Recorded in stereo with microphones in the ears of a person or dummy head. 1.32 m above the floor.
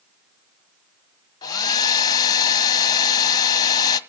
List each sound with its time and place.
1.4 s a hair dryer: 25° left (ahead or behind), 1.0 m